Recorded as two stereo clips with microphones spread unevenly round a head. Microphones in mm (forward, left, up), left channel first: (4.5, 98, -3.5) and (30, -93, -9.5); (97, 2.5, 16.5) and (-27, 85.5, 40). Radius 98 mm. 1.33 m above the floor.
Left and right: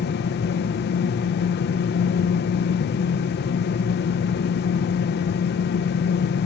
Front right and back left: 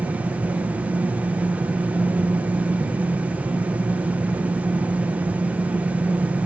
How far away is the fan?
About 1.0 m.